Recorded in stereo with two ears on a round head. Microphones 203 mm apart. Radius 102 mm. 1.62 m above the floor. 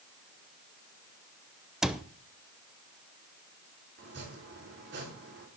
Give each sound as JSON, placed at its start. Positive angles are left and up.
{"t": 1.8, "sound": "a cupboard door", "side_deg": 0, "distance_m": 0.7}
{"t": 4.0, "sound": "chopping", "side_deg": -50, "distance_m": 4.0}